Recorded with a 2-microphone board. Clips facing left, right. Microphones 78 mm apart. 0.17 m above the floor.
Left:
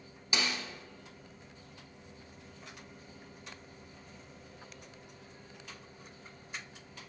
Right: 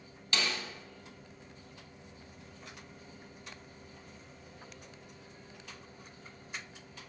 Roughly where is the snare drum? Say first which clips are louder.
Even; centre.